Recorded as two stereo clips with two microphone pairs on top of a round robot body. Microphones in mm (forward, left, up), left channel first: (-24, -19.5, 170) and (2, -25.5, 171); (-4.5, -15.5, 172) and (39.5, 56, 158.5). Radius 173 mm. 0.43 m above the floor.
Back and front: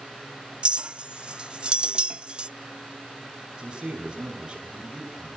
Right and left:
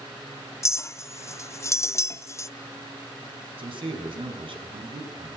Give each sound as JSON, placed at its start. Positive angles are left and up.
{"t": 0.6, "sound": "a clink", "azimuth_deg": -60, "distance_m": 0.6}
{"t": 3.6, "sound": "a man speaking", "azimuth_deg": 50, "distance_m": 6.5}